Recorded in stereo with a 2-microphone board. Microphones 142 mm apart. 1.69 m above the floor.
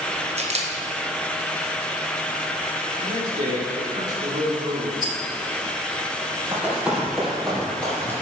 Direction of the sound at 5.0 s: 30° right (ahead or behind).